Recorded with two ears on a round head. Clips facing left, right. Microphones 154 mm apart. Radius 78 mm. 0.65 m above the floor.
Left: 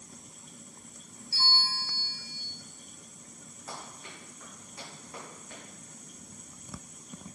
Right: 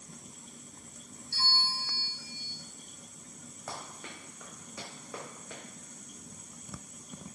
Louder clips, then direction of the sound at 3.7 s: Right 1 dB; 50° right (ahead or behind).